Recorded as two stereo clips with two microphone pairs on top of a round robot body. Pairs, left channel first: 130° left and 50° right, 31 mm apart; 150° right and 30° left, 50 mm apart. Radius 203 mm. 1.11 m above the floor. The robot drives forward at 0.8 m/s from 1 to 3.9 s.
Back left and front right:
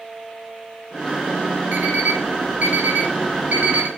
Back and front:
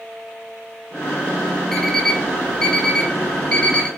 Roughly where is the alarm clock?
Ahead right.